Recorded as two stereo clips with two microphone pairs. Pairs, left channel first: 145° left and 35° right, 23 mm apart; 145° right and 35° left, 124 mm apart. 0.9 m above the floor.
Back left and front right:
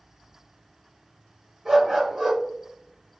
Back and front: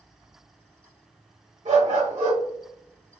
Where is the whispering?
I don't hear whispering.